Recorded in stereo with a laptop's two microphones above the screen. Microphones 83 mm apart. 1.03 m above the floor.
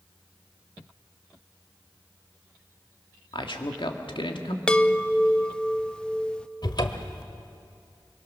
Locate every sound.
3.3 s a man speaking: 80° left, 1.9 m
4.7 s a chime: 10° left (ahead or behind), 0.6 m
6.6 s a cupboard door: 55° left (ahead or behind), 1.2 m